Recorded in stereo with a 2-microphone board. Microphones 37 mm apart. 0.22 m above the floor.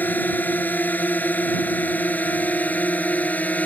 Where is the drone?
55° left (ahead or behind); by 3.6 s 45° left (ahead or behind).